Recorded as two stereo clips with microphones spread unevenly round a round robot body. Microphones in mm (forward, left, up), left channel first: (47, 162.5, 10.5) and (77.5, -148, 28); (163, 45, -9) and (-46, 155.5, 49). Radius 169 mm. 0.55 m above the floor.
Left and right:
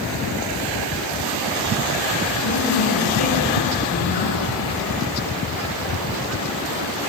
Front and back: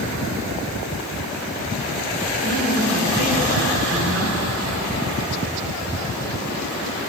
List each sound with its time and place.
2.4 s a man speaking: 120° left, 9 m